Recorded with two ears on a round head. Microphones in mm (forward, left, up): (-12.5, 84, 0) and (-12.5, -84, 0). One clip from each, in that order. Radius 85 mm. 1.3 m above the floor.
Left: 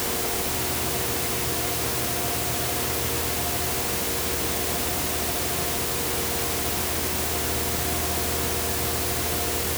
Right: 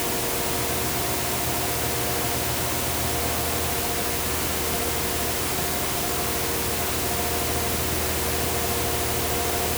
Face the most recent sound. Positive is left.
No sound to turn to.